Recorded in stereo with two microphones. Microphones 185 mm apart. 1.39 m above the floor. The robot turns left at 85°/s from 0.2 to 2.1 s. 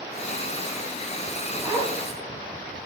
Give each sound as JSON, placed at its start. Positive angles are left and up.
{"t": 1.6, "sound": "a zipper", "side_deg": -15, "distance_m": 5.5}